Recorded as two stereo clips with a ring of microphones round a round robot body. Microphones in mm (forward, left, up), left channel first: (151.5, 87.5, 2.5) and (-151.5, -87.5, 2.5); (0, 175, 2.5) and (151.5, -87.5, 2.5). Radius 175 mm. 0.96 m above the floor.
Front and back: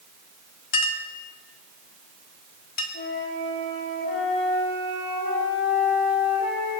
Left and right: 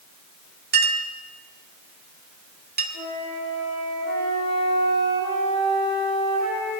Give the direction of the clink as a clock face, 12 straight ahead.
12 o'clock.